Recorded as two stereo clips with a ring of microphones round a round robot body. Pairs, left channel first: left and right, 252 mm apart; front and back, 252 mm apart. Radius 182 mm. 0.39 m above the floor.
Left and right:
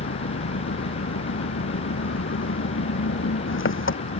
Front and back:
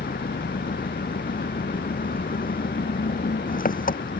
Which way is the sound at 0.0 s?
55° left.